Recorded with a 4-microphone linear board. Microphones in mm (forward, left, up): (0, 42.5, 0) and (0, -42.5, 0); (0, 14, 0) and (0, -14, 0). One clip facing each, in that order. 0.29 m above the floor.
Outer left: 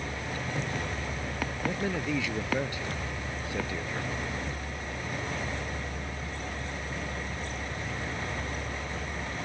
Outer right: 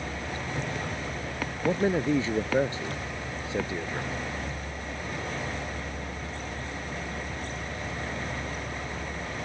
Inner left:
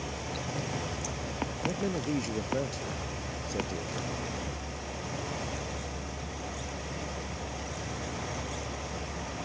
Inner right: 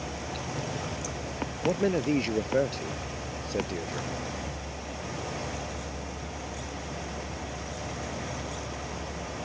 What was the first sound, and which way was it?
A man speaking, 35° right (ahead or behind).